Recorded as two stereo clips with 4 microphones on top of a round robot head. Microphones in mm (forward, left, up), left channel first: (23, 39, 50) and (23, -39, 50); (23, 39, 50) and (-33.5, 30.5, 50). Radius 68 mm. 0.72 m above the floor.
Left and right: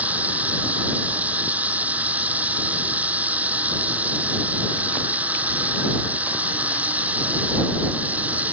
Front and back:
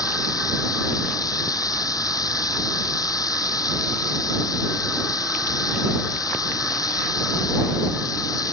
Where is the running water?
20° right.